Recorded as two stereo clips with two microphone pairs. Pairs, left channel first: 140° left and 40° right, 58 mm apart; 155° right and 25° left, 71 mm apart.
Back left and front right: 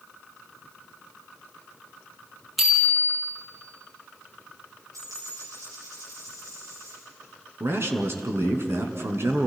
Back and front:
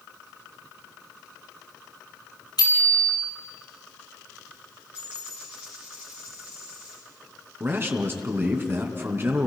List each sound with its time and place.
2.6 s a bicycle bell: 130° right, 4.5 m
4.9 s a dropped coin: 45° right, 9.5 m
7.6 s a man speaking: 20° right, 2.5 m